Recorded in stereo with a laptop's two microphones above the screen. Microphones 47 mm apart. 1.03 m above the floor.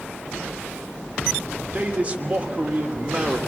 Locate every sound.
1.7 s a man speaking: 25° right (ahead or behind), 3 m